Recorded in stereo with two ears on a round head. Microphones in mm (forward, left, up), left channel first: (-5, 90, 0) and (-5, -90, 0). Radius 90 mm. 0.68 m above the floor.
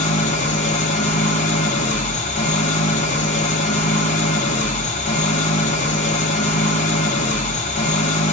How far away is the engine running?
About 1.2 m.